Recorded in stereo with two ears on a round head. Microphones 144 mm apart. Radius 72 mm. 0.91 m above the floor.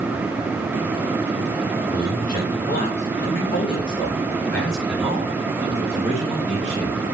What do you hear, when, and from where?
1.9 s a man speaking: 65° left (ahead or behind), 1.8 m; by 7.0 s 25° right (ahead or behind), 2.5 m